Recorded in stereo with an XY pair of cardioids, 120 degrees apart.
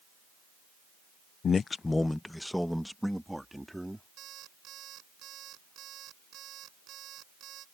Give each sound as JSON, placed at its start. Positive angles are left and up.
{"t": 1.4, "sound": "a man speaking", "azimuth_deg": 45}
{"t": 4.2, "sound": "an alarm clock", "azimuth_deg": -65}